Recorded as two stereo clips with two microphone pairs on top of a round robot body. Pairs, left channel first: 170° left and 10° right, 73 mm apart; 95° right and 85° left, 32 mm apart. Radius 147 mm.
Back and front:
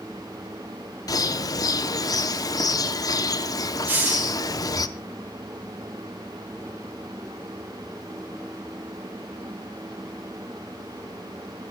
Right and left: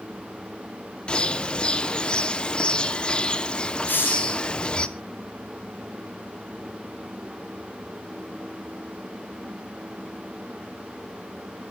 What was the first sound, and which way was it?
A bird, 155° right.